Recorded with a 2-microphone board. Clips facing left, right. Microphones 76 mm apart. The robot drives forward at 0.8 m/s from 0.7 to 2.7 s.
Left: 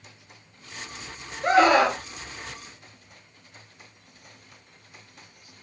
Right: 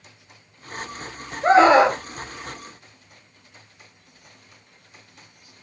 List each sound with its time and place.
1.4 s a scream: 35° right (ahead or behind), 0.8 m; by 2.0 s 20° right (ahead or behind), 1.2 m